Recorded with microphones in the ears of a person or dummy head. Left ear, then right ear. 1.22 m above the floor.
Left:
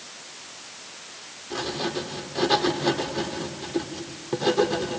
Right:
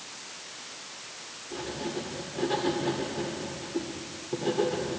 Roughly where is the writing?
Left.